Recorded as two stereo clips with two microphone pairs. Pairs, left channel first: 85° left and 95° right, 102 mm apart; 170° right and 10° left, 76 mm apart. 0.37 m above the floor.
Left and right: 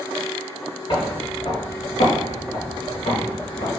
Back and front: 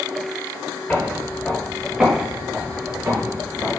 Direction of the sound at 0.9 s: 120° left.